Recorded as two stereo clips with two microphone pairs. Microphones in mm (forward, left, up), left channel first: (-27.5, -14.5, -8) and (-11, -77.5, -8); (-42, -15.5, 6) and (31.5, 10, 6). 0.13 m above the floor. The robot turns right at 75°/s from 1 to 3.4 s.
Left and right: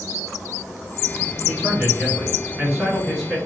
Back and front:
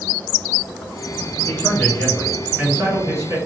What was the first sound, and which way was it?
A man speaking, 130° right.